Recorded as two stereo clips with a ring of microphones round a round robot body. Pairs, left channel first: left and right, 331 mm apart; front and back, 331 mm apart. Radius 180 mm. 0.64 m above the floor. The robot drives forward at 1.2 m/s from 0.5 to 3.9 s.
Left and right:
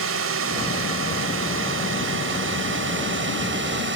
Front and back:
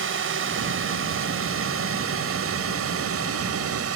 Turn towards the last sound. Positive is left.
turn(degrees=-140)